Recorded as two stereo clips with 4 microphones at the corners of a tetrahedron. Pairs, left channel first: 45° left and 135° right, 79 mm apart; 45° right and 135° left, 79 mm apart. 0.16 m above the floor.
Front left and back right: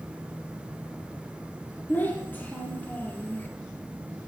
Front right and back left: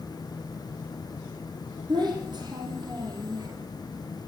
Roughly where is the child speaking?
Left.